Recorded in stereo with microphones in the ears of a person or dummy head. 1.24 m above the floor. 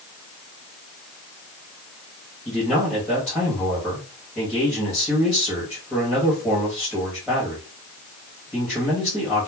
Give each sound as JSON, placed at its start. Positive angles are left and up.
{"t": 2.5, "sound": "a man speaking", "side_deg": 5, "distance_m": 1.2}